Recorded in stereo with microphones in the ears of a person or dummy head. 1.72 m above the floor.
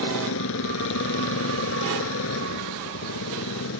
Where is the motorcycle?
70° left (ahead or behind).